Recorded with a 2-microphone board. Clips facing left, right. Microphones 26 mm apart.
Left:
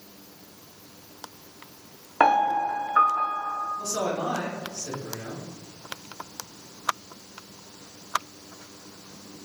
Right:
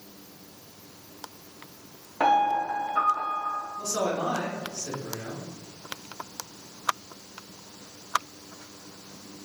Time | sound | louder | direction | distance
2.2 | a piano | left 2 dB | 55° left (ahead or behind) | 0.6 m
3.8 | a man speaking | even | 15° right (ahead or behind) | 0.8 m